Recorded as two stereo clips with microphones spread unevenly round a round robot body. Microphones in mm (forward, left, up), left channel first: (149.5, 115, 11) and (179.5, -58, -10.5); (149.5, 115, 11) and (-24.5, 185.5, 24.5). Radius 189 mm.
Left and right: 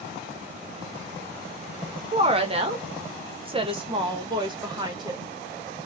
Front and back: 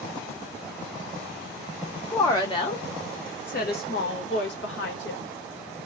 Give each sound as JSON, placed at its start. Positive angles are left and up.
{"t": 2.1, "sound": "a woman speaking", "azimuth_deg": -90, "distance_m": 0.9}